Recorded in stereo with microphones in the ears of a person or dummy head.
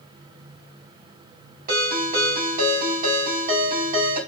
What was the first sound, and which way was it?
A ringtone, 50° right (ahead or behind).